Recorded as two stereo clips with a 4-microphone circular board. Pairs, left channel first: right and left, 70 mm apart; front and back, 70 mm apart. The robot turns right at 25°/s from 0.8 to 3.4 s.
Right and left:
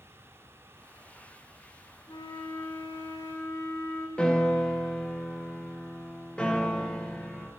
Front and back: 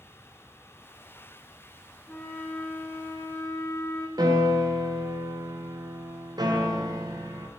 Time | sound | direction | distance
2.1 | a flute | 80° right | 1.0 m
4.2 | a piano | 165° right | 0.8 m